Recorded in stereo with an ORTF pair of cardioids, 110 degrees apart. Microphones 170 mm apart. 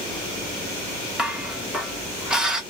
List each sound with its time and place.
1.2 s dishes clattering: 5° right, 1.2 m